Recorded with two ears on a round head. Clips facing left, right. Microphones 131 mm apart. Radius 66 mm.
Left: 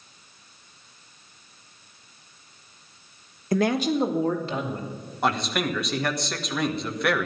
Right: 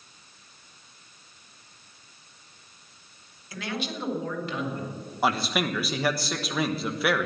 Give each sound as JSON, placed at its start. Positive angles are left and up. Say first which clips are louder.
{"t": 3.5, "sound": "a man speaking", "louder": "left 11 dB", "side_deg": 40, "distance_m": 1.3}
{"t": 5.2, "sound": "a man speaking", "louder": "left 1 dB", "side_deg": -5, "distance_m": 1.4}